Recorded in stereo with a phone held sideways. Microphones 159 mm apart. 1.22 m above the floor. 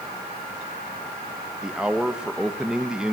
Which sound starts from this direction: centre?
A man speaking, at 1.6 s.